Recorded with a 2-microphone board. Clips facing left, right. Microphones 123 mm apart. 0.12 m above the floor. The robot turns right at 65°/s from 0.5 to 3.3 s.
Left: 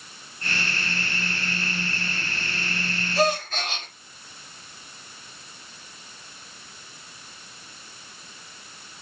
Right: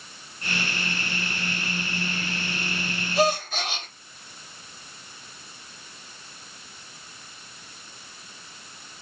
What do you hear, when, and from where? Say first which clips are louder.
3.1 s a gasp: even; 20° right (ahead or behind), 2.5 m; by 3.9 s 10° right (ahead or behind), 2.5 m